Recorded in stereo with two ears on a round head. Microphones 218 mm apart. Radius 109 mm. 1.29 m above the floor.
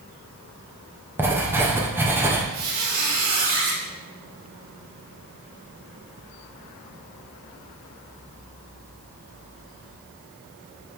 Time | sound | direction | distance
1.2 | writing | 10° right (ahead or behind) | 0.8 m
2.5 | a squeak | 60° right (ahead or behind) | 1.8 m